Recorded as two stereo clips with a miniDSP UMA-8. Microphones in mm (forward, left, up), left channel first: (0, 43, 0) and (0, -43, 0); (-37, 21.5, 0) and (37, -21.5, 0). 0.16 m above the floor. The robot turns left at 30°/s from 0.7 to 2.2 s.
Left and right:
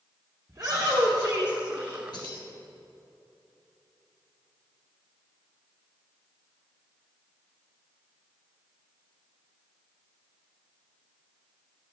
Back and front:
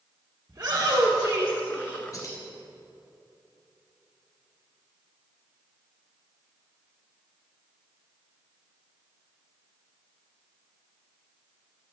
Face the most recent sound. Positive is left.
turn(degrees=105)